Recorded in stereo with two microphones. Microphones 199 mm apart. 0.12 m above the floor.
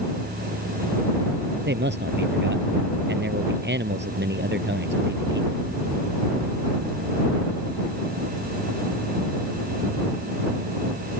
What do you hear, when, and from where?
1.7 s a man speaking: 60° right (ahead or behind)